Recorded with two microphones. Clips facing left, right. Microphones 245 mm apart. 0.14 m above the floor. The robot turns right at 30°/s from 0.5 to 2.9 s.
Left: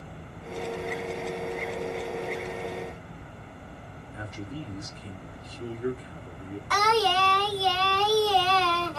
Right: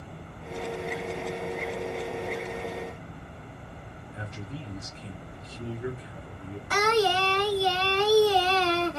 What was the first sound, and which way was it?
A man speaking, 25° right (ahead or behind).